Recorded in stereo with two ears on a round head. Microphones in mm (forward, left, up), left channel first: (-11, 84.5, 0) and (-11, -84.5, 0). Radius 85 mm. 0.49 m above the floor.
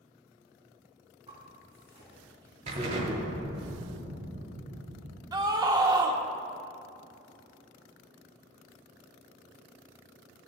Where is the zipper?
25° right (ahead or behind), 3.5 m.